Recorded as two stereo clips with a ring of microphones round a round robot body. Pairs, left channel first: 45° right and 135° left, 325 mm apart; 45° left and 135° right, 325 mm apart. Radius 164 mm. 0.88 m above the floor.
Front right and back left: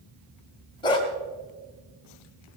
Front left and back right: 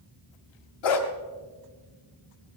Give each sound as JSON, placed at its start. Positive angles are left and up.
{"t": 0.8, "sound": "a dog barking", "azimuth_deg": 30, "distance_m": 1.7}